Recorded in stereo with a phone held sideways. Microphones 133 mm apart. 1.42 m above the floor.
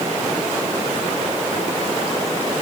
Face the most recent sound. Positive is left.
No sound to turn to.